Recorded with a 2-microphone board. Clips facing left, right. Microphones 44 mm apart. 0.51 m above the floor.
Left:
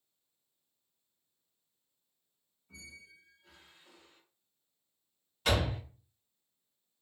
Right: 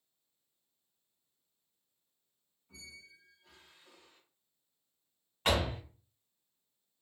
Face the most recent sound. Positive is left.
turn(degrees=-35)  # may be behind; listen again after turning